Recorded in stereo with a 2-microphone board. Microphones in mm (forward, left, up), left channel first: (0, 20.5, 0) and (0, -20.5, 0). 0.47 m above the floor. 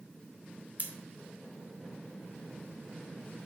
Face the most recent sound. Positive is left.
turn(degrees=-40)  # may be behind; listen again after turning